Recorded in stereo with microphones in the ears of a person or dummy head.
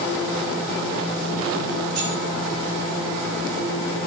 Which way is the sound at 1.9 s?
60° right (ahead or behind).